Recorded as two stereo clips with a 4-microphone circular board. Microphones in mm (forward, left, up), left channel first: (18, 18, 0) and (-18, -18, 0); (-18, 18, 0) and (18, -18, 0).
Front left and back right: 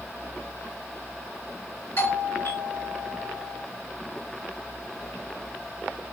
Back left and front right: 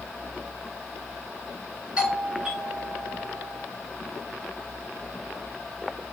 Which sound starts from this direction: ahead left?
A doorbell, at 2.0 s.